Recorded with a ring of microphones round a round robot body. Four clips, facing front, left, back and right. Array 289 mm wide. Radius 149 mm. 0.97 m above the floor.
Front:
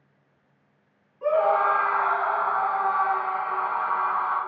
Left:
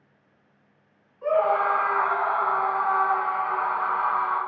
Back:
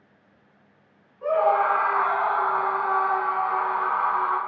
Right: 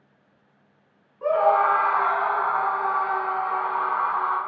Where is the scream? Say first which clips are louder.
Right 3 dB, even; 80° right, 0.7 m; by 4.4 s 160° right, 1.7 m.